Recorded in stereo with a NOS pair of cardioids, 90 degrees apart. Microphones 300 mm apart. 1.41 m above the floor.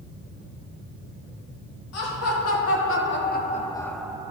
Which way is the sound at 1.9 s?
55° left.